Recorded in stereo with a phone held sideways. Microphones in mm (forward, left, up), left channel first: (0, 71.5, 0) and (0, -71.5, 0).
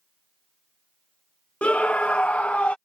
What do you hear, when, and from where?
1.6 s a scream: 10° left (ahead or behind)